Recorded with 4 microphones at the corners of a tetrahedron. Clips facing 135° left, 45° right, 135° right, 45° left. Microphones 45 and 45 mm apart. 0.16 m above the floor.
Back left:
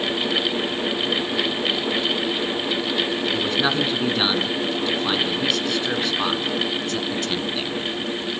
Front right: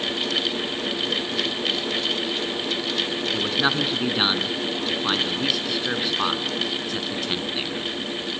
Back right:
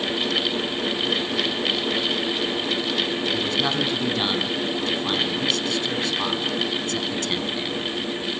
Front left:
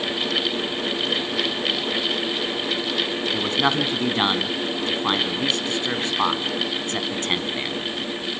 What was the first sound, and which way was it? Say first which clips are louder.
A man speaking: even, front left 5 dB; 30° left.